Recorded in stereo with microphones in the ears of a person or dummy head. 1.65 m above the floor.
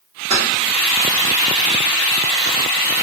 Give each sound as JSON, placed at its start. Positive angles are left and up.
{"t": 0.3, "sound": "keys jangling", "side_deg": -35, "distance_m": 0.8}